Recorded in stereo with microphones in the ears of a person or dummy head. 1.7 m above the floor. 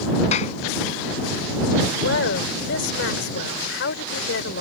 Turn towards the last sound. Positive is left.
turn(degrees=75)  # may be behind; listen again after turning